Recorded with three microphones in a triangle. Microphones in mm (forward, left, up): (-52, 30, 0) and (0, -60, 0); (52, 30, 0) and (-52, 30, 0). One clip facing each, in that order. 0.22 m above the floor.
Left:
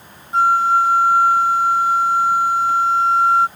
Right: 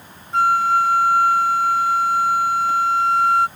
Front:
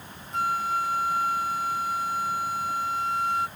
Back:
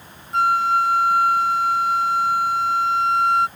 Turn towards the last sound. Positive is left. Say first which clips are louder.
# left 2 dB, back 9 dB
turn(degrees=-170)